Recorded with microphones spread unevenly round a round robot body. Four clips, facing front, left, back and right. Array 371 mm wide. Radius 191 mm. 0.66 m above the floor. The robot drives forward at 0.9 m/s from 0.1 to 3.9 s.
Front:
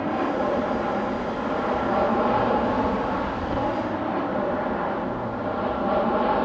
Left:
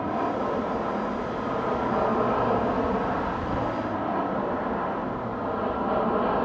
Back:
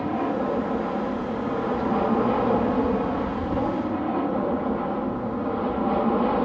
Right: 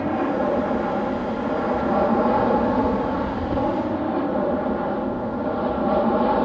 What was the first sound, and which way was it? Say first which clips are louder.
An aircraft: right 5 dB, front 1 dB; 95° right.